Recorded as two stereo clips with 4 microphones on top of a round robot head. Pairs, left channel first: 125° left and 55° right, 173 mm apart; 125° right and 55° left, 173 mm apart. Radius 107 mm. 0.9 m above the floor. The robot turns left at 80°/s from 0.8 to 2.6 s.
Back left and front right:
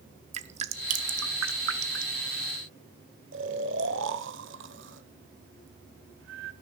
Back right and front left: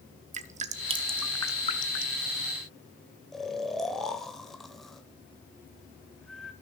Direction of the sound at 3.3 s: 40° right.